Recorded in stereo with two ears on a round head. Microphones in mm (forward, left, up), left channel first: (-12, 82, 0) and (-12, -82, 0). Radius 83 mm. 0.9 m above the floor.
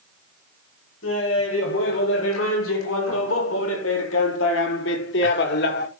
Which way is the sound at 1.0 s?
70° left (ahead or behind).